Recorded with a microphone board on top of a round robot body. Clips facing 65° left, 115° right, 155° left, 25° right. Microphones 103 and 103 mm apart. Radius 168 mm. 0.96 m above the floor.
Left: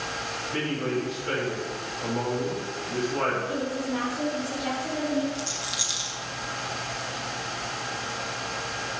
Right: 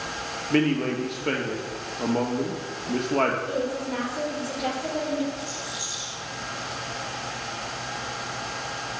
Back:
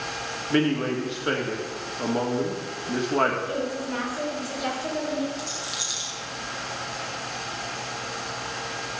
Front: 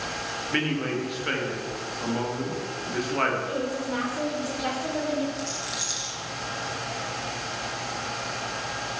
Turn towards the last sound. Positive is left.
turn(degrees=70)